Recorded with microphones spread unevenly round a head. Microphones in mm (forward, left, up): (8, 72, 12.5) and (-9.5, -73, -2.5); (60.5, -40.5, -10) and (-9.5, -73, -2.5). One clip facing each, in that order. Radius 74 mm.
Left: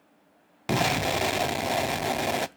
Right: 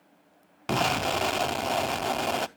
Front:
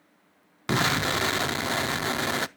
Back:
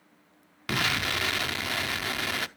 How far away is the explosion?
About 0.5 m.